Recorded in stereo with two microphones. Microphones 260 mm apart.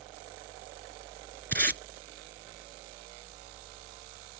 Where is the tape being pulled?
40° right (ahead or behind).